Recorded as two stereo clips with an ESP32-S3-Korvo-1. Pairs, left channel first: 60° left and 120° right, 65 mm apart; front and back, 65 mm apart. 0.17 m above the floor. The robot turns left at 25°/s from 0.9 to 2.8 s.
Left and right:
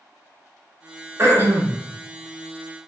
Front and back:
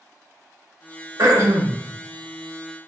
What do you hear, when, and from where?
1.2 s throat clearing: 160° right, 0.9 m; by 1.8 s 175° right, 0.9 m